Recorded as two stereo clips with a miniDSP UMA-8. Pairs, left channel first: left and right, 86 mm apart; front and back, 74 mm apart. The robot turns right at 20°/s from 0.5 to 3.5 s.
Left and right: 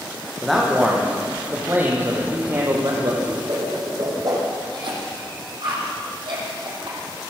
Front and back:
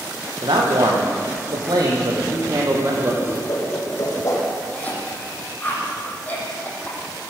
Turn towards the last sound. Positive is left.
turn(degrees=-70)